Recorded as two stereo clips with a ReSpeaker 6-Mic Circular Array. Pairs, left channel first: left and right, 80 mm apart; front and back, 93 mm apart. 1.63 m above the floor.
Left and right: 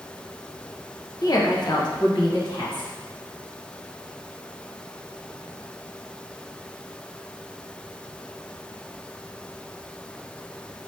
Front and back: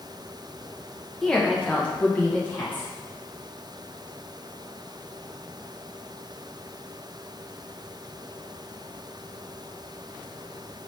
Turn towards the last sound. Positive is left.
turn(degrees=70)